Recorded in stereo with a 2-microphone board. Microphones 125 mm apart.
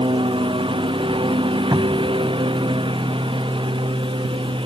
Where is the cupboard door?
35° right (ahead or behind).